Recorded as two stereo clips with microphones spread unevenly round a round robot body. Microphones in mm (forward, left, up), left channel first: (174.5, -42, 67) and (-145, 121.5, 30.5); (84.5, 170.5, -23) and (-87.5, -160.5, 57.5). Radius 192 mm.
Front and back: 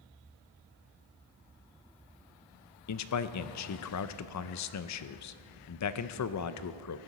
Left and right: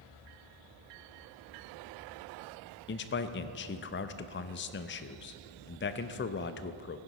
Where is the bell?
No bell in this recording.